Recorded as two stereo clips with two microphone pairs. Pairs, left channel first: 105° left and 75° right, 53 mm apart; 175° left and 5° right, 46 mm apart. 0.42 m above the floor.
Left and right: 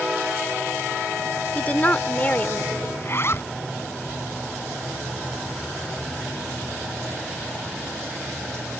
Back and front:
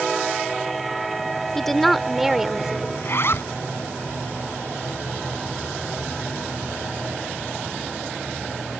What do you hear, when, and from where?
1.6 s a woman speaking: 100° left; by 2.9 s 60° left
3.0 s a zipper: 145° left